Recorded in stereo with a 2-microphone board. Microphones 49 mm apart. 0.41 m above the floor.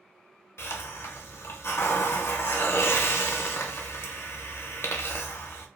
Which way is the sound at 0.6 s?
60° left (ahead or behind).